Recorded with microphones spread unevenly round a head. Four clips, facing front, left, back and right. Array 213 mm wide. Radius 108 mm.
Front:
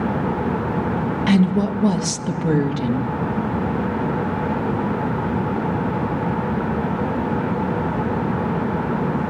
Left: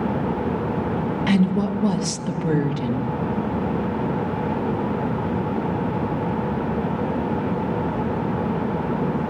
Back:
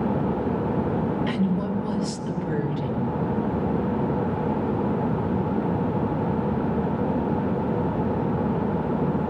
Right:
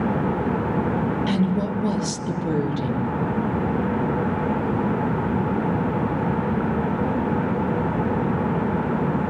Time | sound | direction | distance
1.3 | a woman speaking | 25° left | 3 m